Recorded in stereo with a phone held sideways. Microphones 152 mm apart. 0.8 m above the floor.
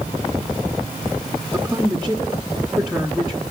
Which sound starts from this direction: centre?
A woman speaking, at 1.5 s.